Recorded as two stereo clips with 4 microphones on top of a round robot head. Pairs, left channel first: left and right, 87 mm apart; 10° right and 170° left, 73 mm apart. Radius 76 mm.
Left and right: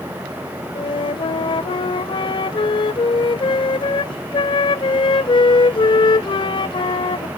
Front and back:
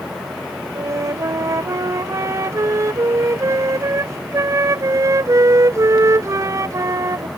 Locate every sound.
0.8 s a flute: 120° left